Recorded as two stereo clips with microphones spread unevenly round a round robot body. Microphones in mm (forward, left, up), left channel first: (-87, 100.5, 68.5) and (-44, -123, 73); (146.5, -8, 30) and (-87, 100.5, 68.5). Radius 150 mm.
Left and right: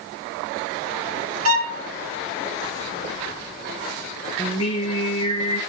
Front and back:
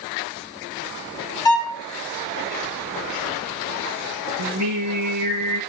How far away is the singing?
About 9 m.